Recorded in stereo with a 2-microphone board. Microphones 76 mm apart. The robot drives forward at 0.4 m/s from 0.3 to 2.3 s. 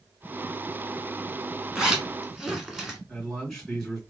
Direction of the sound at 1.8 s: 10° right (ahead or behind).